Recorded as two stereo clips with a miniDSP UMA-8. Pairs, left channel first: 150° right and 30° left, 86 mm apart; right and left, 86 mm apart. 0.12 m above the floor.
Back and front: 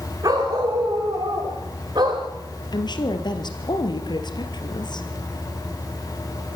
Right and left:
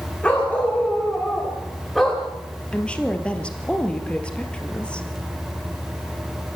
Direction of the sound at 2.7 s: 165° right.